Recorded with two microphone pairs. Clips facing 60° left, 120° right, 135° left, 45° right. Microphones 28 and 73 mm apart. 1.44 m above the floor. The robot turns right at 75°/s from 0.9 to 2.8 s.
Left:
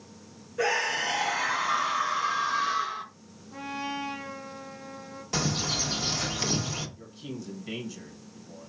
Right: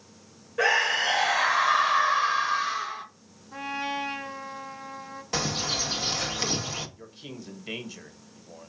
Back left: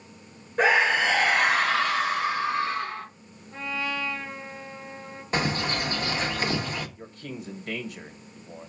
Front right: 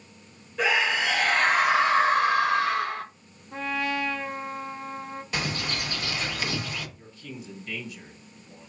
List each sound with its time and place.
0.6 s a scream: 175° left, 1.4 m; by 3.0 s 40° right, 1.4 m
3.5 s a trumpet: 70° right, 1.1 m
5.3 s a bird: 170° left, 0.9 m
7.0 s a man speaking: 175° left, 1.2 m